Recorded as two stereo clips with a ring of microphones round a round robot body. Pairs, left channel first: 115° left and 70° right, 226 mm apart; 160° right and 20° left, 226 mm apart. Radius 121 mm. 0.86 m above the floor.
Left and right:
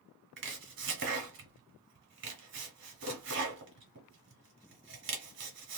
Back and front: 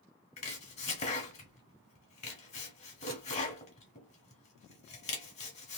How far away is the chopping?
About 1.1 m.